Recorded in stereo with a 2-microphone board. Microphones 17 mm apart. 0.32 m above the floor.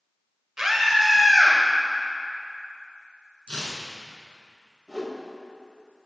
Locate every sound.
0.6 s a scream: 30° right (ahead or behind), 1.0 m; by 1.6 s 25° left (ahead or behind), 1.5 m
3.5 s tearing paper: 70° left (ahead or behind), 0.9 m
4.9 s a whoosh: centre (ahead or behind), 0.9 m